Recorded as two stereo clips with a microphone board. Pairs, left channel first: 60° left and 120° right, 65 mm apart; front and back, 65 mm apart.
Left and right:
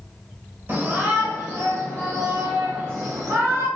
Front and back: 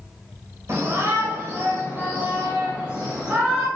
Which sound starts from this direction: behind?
A shout, at 0.7 s.